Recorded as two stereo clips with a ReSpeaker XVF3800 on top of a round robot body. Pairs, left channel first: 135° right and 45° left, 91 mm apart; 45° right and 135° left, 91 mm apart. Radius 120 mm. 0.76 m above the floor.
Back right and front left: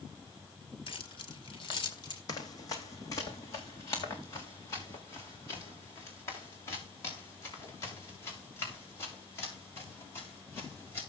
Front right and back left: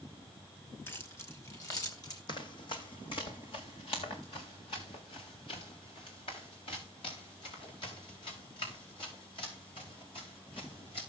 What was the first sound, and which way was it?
Keys jangling, 110° right.